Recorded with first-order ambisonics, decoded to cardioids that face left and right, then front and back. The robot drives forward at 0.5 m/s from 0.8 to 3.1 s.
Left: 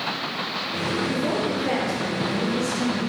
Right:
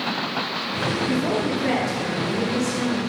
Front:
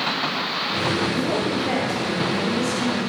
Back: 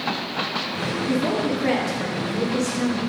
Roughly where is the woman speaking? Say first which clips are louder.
Right 1 dB, even; behind right.